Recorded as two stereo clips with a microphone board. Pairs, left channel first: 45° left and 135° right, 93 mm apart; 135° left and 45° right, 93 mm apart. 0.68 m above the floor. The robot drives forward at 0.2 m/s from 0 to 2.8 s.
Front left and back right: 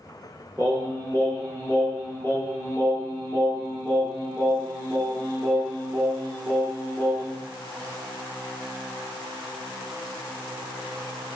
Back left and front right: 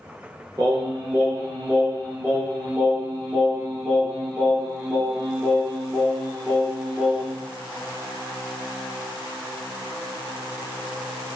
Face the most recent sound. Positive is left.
turn(degrees=-110)